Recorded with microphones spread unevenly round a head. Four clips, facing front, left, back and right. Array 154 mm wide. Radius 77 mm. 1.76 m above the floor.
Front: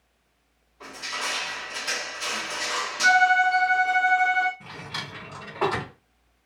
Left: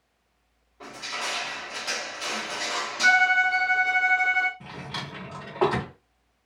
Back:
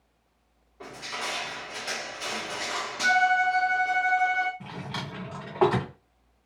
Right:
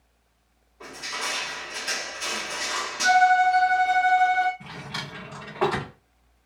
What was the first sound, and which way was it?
Crushing, 160° left.